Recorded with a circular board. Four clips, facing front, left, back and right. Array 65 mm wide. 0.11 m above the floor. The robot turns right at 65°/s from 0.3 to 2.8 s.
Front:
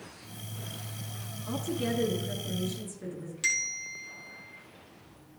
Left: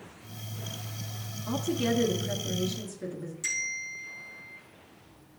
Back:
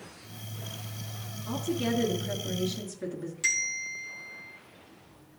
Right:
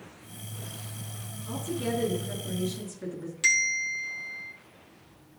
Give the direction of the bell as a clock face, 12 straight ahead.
2 o'clock.